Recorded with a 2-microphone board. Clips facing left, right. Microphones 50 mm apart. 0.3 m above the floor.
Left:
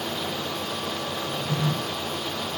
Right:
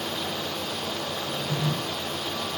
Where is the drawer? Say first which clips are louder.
Left 2 dB; 85° left, 5 m.